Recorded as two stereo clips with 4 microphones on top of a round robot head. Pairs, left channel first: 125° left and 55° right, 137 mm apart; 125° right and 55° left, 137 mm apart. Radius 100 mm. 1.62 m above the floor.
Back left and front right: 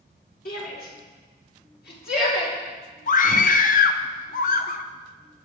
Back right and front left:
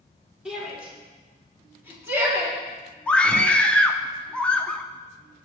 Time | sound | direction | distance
0.5 | a shout | 140° left | 4 m
3.1 | a scream | 155° left | 0.9 m